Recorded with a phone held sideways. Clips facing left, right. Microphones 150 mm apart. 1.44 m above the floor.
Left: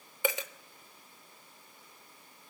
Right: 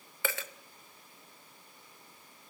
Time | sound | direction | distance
0.2 | a dropped coin | 20° left (ahead or behind) | 0.7 m